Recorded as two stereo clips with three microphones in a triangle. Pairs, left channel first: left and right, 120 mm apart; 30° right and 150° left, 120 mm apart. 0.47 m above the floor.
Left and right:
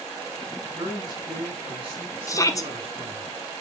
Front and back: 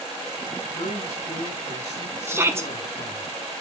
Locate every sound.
0.7 s a man speaking: 40° right, 4.5 m; by 3.3 s 60° right, 5.5 m
2.3 s a shout: 110° left, 1.0 m